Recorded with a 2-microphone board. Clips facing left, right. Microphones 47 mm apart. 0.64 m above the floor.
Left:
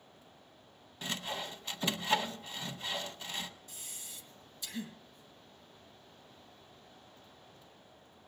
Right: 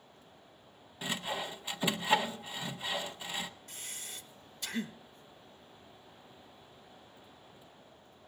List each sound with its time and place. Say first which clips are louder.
1.0 s sawing: right 2 dB; 15° right (ahead or behind), 0.8 m
3.7 s breathing: right 4 dB; 60° right (ahead or behind), 1.0 m